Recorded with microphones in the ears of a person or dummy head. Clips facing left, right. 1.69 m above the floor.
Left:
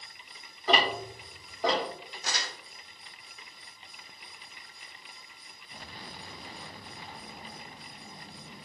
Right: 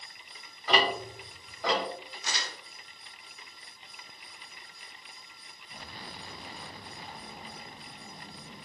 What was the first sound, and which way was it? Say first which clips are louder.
Ticking: even; 25° left (ahead or behind).